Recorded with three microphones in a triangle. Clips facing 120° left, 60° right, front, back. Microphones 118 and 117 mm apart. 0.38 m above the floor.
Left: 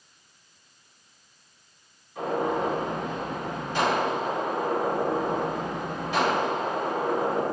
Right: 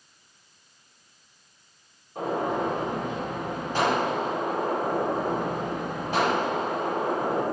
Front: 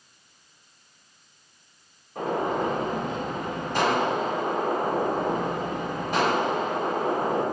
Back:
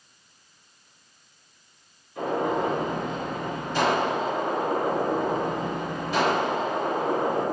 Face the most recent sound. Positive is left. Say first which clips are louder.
# even, back 1 dB
turn(degrees=-20)